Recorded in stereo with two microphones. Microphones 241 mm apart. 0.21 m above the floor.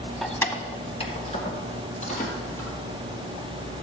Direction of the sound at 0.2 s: Centre (ahead or behind).